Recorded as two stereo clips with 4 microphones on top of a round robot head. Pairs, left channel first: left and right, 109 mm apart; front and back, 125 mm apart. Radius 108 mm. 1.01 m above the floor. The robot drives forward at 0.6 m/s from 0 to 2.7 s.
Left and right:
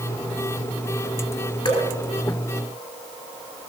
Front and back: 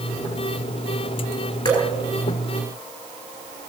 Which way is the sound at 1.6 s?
50° left.